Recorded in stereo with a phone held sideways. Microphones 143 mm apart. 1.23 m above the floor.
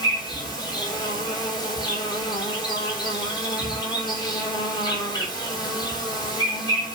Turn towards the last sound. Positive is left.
turn(degrees=30)  # may be behind; listen again after turning